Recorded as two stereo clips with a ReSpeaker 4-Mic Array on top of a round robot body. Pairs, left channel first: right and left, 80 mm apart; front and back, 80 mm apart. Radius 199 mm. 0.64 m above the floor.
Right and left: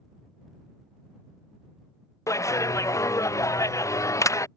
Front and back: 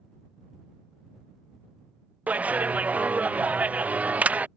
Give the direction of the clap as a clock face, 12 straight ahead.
4 o'clock.